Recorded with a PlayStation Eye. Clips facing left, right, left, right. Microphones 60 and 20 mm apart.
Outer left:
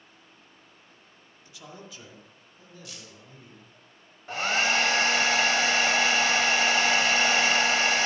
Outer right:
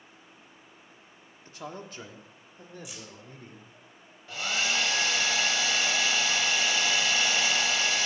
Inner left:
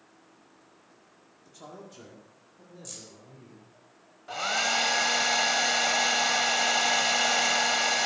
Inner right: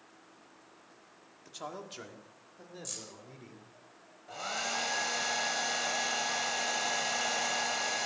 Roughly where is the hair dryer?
Left.